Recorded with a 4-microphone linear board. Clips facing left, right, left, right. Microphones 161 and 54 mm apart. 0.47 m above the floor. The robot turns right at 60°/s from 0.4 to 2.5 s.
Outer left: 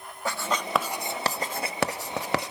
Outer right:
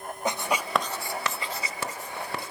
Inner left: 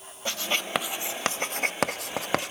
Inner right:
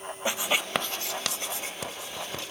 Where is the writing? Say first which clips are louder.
Outer right 1 dB, inner right 1 dB; 20° right (ahead or behind), 0.7 m; by 2.5 s 70° left (ahead or behind), 0.7 m.